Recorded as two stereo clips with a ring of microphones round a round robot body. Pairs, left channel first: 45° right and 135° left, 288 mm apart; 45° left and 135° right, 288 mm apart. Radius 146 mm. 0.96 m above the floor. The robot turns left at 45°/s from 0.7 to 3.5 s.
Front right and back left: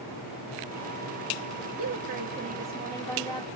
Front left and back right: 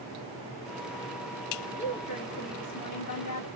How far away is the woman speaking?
About 1.3 m.